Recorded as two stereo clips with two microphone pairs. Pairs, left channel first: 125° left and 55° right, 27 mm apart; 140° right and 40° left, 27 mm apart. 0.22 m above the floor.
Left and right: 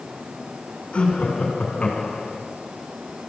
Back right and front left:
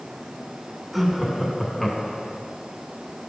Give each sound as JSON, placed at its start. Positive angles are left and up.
{"t": 0.9, "sound": "laughter", "azimuth_deg": 130, "distance_m": 2.0}